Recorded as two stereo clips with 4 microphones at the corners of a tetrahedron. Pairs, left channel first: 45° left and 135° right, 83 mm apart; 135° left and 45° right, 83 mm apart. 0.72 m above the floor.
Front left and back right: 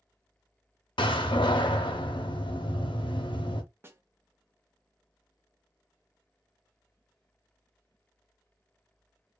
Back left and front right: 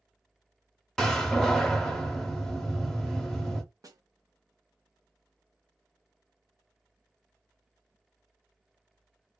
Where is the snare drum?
80° right, 0.5 m.